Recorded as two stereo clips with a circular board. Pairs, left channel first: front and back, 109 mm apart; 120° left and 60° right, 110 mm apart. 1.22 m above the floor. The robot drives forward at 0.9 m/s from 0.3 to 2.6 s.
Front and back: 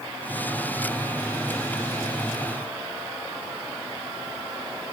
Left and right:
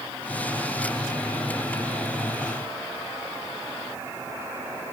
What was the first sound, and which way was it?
Only background noise.